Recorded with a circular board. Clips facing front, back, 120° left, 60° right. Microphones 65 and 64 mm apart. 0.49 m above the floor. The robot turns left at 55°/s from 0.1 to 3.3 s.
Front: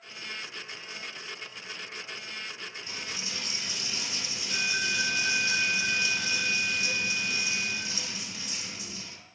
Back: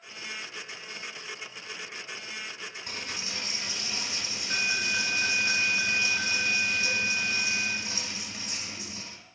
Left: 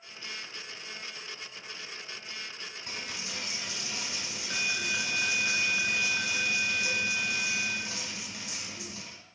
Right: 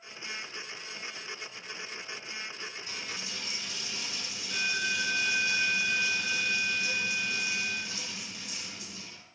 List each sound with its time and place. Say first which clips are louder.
2.9 s a dropped coin: back 1 dB, even; 150° left, 0.8 m; by 9.2 s 125° left, 0.8 m